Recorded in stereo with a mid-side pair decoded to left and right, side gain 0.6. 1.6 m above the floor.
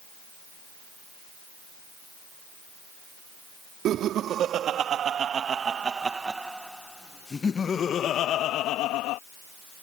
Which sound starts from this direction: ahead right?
Laughter, at 3.9 s.